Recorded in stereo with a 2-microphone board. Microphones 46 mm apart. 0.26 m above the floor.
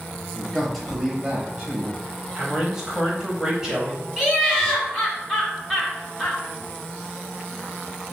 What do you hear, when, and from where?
0.3 s a man speaking: 10° left (ahead or behind), 1.0 m; by 2.0 s 25° right (ahead or behind), 1.2 m
2.4 s a man speaking: 15° right (ahead or behind), 1.0 m
4.2 s laughter: centre (ahead or behind), 2.0 m